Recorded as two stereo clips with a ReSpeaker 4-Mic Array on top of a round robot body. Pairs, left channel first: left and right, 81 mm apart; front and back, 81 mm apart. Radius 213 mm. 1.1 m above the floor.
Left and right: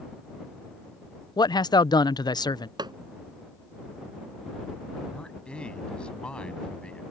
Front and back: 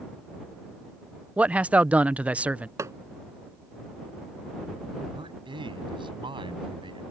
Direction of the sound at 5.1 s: 170° left.